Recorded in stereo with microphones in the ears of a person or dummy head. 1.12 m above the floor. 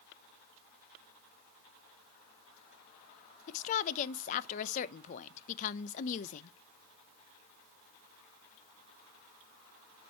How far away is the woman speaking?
About 0.5 m.